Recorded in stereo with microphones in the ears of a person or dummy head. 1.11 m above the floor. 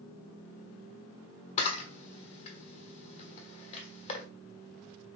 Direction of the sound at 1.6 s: 35° left (ahead or behind).